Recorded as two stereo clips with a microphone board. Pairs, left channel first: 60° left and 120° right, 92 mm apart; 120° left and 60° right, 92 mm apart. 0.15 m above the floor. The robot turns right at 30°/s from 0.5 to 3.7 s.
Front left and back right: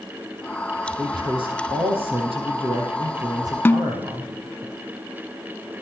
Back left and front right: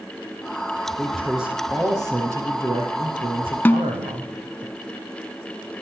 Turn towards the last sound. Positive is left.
turn(degrees=95)